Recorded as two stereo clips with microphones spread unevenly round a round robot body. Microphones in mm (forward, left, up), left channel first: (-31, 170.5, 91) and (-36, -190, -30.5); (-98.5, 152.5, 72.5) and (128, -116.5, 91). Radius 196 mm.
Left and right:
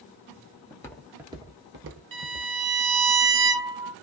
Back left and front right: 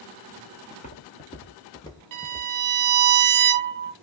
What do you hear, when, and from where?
0.7 s footsteps: 65° left, 0.7 m; by 2.5 s 145° right, 0.9 m
2.1 s a violin: 65° right, 0.7 m